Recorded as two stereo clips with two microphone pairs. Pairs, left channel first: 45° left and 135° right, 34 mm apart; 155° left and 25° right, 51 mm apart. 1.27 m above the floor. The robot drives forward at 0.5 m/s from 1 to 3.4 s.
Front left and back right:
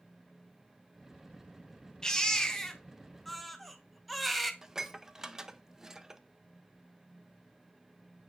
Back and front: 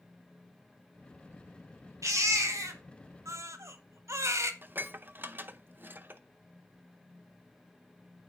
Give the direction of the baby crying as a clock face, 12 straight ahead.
1 o'clock.